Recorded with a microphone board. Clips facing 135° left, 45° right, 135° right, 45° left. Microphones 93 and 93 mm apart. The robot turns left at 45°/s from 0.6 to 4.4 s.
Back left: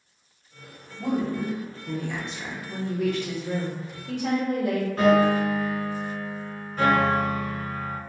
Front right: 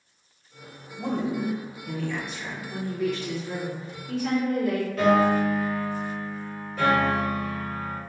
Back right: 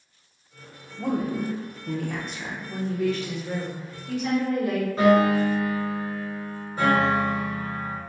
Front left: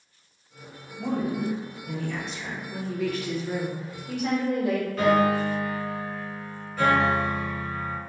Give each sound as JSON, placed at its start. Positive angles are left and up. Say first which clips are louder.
{"t": 1.0, "sound": "a woman speaking", "louder": "back left 1 dB, back right 1 dB", "azimuth_deg": -105, "distance_m": 0.7}
{"t": 2.7, "sound": "a woman speaking", "louder": "back left 2 dB, back right 4 dB", "azimuth_deg": -170, "distance_m": 1.0}
{"t": 5.0, "sound": "a piano", "louder": "back left 1 dB, back right 3 dB", "azimuth_deg": 170, "distance_m": 2.0}